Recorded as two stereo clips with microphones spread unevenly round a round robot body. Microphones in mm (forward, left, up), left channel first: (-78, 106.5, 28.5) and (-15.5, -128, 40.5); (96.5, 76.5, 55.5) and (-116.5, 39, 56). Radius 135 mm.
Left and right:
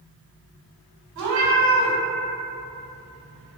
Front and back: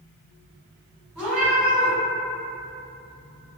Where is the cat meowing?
85° right, 1.1 m.